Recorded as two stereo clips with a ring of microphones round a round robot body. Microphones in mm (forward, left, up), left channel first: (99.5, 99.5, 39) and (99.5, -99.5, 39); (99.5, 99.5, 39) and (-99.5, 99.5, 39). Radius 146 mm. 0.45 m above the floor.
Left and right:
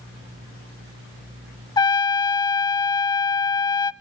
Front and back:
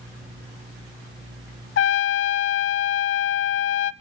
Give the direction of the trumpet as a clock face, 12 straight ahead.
11 o'clock.